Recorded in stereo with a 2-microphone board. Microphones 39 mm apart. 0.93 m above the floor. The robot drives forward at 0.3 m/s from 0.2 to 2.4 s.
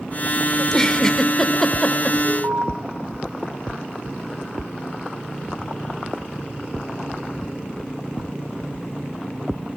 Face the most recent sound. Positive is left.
turn(degrees=-75)  # may be behind; listen again after turning